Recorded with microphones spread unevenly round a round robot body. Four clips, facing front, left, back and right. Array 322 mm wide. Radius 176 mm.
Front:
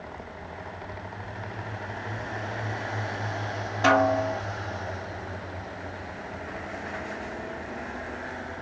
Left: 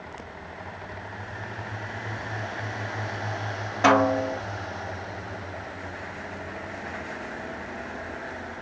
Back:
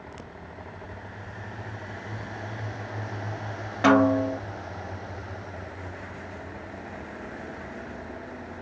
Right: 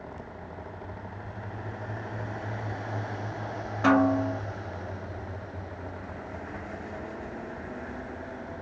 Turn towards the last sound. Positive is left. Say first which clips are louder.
# left 2 dB, back 2 dB
turn(degrees=180)